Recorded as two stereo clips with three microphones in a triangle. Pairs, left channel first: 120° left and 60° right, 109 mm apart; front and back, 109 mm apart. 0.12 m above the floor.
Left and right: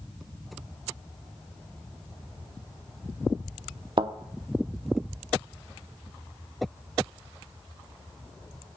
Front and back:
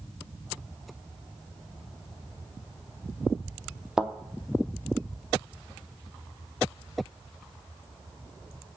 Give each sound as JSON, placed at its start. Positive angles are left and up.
{"t": 4.0, "sound": "a thud", "azimuth_deg": -95, "distance_m": 0.7}